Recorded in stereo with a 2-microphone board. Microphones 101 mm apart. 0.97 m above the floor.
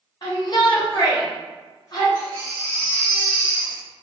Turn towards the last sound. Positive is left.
turn(degrees=20)  # may be behind; listen again after turning